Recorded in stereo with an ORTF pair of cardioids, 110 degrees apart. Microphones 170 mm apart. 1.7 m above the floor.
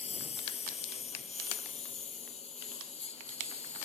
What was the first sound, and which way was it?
A lawn mower, 40° left.